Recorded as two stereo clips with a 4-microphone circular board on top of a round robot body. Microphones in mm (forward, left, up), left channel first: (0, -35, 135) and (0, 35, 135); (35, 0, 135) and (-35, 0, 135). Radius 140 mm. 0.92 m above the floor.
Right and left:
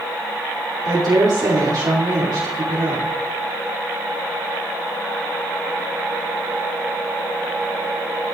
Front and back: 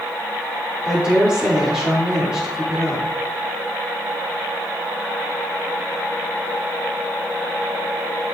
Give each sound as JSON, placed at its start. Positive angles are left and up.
{"t": 0.8, "sound": "a woman speaking", "azimuth_deg": 105, "distance_m": 3.0}